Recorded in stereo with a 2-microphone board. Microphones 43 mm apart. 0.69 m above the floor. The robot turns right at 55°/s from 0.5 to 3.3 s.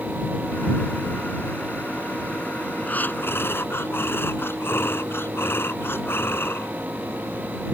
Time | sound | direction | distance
2.9 | breathing | 35° left (ahead or behind) | ?